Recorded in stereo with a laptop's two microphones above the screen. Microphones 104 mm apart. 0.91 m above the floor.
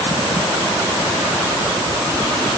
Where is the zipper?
I don't hear a zipper.